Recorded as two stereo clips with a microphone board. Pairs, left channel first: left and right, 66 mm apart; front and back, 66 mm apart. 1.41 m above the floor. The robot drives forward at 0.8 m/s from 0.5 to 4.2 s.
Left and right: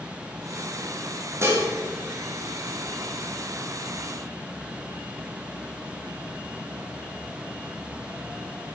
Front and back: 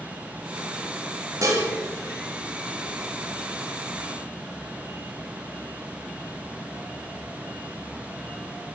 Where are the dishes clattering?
140° right, 1.8 m; by 1.6 s 145° right, 2.0 m.